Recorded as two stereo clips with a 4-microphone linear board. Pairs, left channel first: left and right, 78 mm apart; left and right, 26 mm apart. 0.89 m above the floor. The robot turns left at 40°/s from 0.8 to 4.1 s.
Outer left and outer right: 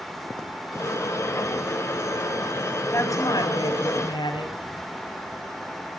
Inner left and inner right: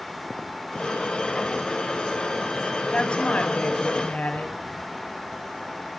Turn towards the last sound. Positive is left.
turn(degrees=95)